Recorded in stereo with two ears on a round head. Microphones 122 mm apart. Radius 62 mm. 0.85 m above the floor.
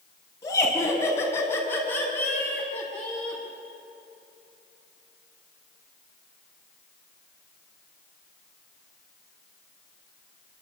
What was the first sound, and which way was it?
Laughter, 25° left (ahead or behind).